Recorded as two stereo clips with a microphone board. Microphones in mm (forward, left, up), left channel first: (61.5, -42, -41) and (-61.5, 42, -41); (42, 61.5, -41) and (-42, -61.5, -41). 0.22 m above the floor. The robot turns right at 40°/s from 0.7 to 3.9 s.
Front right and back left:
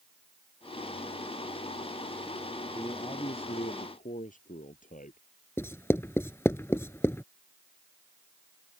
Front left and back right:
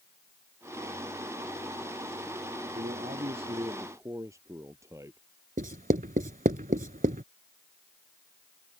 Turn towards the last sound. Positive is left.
turn(degrees=-105)